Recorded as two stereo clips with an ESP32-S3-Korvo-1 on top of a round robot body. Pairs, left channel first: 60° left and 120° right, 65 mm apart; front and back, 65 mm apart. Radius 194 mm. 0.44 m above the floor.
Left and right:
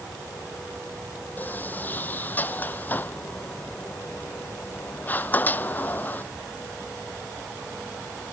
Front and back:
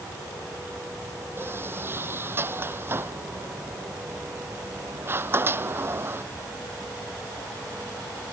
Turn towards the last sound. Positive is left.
turn(degrees=125)